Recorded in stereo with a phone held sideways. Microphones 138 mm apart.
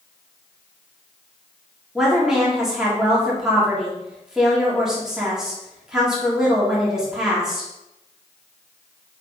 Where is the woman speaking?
5° right (ahead or behind), 3.5 m.